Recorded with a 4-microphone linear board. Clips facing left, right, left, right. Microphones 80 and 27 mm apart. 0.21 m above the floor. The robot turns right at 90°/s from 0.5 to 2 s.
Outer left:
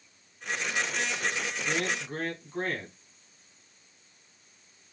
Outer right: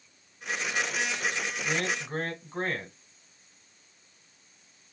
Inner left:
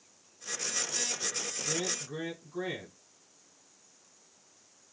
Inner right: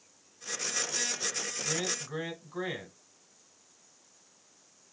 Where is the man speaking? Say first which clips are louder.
Even, even; 90° right, 1.3 m; by 2.9 s 60° right, 1.3 m.